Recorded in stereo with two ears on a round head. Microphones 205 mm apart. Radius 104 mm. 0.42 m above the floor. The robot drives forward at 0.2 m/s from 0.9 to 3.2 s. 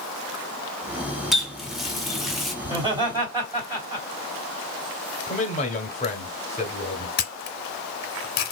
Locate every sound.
1.3 s a running tap: centre (ahead or behind), 0.7 m
2.6 s laughter: 20° right (ahead or behind), 1.8 m; by 4.1 s 15° right (ahead or behind), 1.9 m
5.3 s a man speaking: 30° left (ahead or behind), 0.9 m
7.2 s a camera shutter: 40° left (ahead or behind), 0.5 m